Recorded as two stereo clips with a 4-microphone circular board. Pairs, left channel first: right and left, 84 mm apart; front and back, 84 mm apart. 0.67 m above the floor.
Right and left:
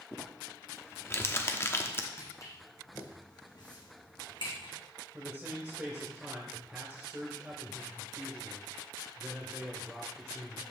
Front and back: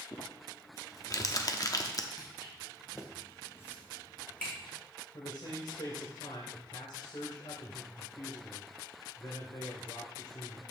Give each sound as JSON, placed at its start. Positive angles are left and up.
{"t": 0.1, "sound": "crumpling", "azimuth_deg": -35, "distance_m": 0.8}
{"t": 2.2, "sound": "footsteps", "azimuth_deg": -40, "distance_m": 2.0}
{"t": 5.1, "sound": "a man speaking", "azimuth_deg": 15, "distance_m": 1.9}